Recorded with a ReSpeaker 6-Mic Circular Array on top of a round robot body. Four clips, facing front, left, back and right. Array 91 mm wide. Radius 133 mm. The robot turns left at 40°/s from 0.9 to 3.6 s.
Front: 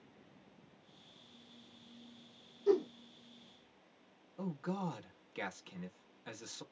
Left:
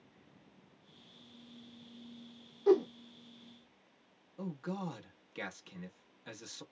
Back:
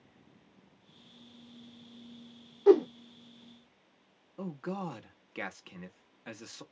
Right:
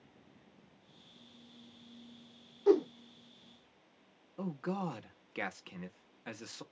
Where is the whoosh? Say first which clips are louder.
Even, back 9 dB; 175° right, 0.6 m; by 2.9 s 175° left, 0.6 m.